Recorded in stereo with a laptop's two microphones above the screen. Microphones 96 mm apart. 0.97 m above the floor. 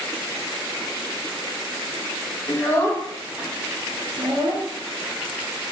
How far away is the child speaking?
About 1.1 m.